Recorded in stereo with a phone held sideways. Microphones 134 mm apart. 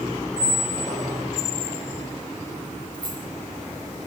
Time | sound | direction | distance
0.4 | a squeak | 25° right (ahead or behind) | 2 m
2.9 | keys jangling | 35° right (ahead or behind) | 2.5 m